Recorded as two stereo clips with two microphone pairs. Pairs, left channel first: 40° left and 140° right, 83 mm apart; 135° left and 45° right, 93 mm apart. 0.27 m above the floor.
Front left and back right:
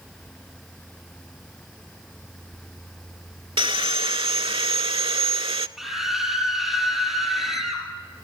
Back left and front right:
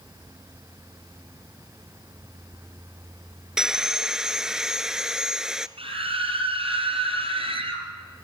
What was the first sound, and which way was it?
Sawing, 130° right.